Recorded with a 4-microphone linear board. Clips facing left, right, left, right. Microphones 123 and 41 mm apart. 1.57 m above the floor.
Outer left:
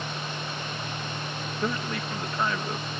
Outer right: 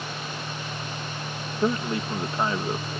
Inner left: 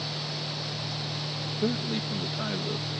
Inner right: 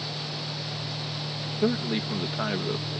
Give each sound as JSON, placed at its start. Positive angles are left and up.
{"t": 1.6, "sound": "a man speaking", "side_deg": -25}